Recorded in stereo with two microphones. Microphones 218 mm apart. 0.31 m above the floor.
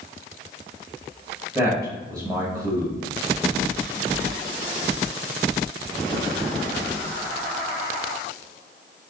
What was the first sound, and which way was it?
A man speaking, 15° right (ahead or behind).